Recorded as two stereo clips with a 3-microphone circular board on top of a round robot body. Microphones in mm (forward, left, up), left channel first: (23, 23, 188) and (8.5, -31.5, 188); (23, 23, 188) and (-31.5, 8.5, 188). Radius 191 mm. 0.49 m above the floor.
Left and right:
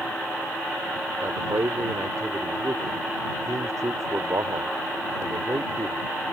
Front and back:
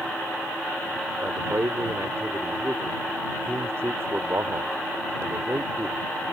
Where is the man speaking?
125° right.